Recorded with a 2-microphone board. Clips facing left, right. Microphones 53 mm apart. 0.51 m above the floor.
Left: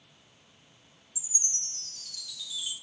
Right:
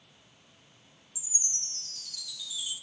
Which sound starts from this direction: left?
A chime, at 1.1 s.